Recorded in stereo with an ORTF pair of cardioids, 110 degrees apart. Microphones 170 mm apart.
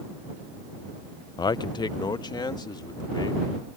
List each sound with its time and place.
1.4 s a man speaking: 25° left